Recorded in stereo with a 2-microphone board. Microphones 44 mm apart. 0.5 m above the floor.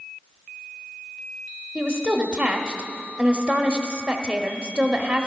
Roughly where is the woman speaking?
Centre.